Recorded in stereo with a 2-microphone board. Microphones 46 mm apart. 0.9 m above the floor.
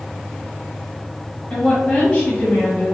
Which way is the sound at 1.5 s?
25° left (ahead or behind).